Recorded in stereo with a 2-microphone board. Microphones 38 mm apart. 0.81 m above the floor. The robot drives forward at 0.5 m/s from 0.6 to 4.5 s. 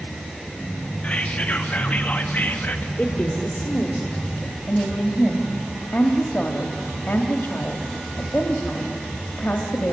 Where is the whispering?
30° left (ahead or behind), 1.5 m; by 2.9 s 50° left (ahead or behind), 1.1 m.